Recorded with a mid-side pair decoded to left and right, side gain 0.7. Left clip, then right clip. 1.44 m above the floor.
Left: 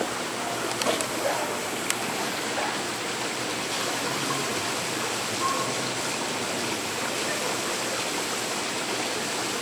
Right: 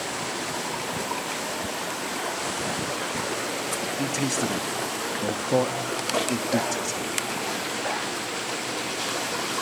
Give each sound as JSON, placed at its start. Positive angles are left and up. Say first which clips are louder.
{"t": 4.0, "sound": "a man speaking", "louder": "right 1 dB", "azimuth_deg": -60, "distance_m": 1.9}